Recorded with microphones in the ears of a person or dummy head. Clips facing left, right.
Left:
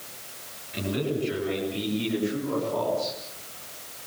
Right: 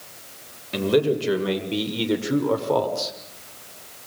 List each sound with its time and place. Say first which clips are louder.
0.7 s a man speaking: right 8 dB; 85° right, 8 m